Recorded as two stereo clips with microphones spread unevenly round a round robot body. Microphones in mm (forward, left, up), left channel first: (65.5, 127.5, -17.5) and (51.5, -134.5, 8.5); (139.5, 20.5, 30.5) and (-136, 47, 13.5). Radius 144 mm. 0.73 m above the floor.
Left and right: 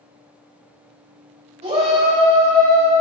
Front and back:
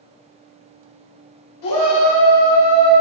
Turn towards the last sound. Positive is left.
turn(degrees=-25)